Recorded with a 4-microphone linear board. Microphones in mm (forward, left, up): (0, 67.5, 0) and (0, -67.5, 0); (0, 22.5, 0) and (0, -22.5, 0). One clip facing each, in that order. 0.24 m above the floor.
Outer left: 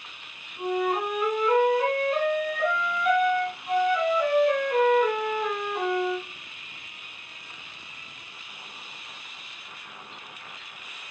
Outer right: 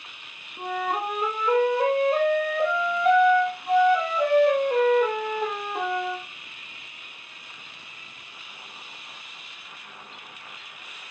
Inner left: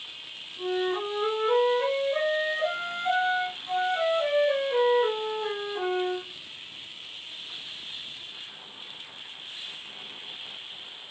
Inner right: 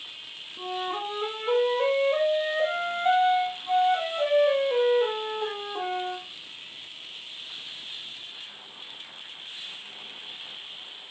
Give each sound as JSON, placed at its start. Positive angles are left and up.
{"t": 0.6, "sound": "a flute", "side_deg": -30, "distance_m": 7.5}